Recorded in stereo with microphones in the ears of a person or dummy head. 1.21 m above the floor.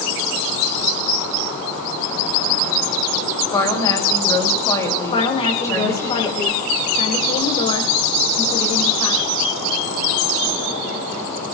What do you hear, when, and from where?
3.5 s a woman speaking: 20° left (ahead or behind), 5.5 m
5.1 s a woman speaking: 35° left (ahead or behind), 5 m